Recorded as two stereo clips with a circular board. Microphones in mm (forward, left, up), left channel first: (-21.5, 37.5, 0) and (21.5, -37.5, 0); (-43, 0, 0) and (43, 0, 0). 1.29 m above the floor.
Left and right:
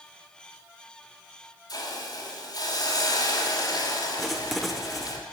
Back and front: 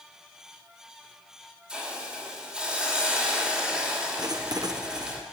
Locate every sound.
1.7 s a hiss: 80° left, 3 m
4.2 s writing: 30° left, 0.9 m